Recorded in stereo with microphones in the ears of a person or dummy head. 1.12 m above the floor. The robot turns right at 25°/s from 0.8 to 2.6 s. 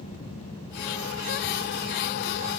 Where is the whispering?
I don't hear whispering.